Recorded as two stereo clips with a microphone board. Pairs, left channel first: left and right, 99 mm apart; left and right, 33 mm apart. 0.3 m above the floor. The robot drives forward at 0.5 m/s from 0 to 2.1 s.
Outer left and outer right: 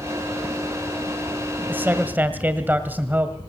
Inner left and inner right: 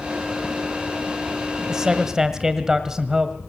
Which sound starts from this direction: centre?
A man speaking, at 1.7 s.